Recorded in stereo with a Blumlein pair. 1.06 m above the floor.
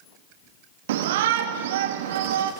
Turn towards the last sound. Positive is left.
turn(degrees=-55)